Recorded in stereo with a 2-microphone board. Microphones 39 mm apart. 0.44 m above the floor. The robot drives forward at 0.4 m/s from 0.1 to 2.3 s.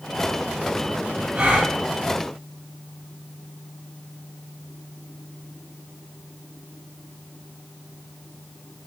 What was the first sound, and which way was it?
A gasp, 45° right (ahead or behind).